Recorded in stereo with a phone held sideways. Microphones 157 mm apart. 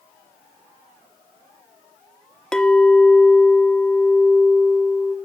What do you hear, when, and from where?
2.5 s a clink: 5° left (ahead or behind), 0.9 m